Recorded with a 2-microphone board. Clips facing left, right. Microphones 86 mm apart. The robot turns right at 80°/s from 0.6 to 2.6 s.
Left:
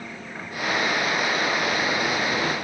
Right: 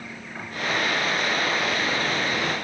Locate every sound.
Only background noise.